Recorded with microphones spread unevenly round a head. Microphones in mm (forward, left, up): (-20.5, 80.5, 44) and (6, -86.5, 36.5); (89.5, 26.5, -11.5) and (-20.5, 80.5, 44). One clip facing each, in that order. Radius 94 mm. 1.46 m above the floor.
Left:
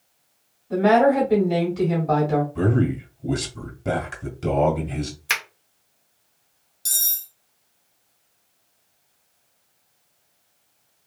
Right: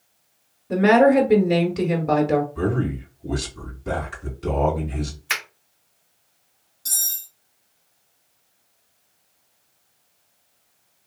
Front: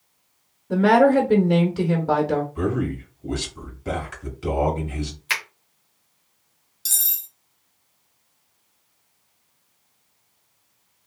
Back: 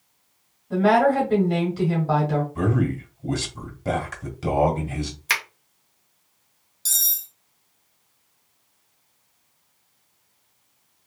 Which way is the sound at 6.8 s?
80° left.